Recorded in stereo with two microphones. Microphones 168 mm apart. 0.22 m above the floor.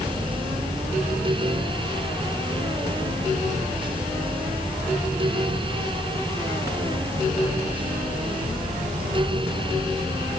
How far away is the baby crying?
I don't hear a baby crying.